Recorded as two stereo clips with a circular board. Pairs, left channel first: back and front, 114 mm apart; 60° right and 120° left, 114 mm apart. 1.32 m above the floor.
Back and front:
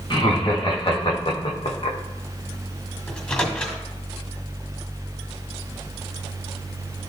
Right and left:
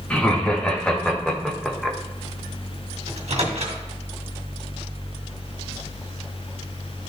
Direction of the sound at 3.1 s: 100° left.